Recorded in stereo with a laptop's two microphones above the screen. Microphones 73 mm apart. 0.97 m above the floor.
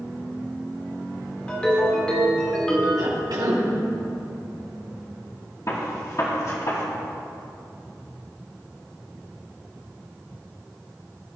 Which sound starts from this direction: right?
A cough, at 3.0 s.